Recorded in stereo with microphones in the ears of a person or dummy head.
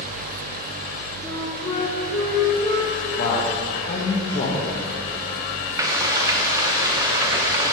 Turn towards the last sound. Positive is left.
turn(degrees=-15)  # may be behind; listen again after turning